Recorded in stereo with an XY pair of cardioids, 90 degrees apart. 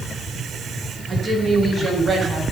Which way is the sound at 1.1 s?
45° right.